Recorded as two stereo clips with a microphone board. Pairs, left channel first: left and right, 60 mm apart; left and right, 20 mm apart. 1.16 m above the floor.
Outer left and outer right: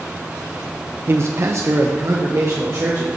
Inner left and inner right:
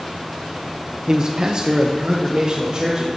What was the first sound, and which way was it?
A man speaking, 40° right (ahead or behind).